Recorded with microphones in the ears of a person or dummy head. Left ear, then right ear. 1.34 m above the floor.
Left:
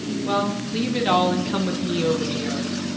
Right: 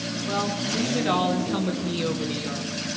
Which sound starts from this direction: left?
A woman speaking, at 0.2 s.